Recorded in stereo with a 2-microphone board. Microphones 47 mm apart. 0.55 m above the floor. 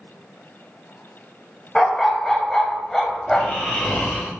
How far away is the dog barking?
About 0.6 m.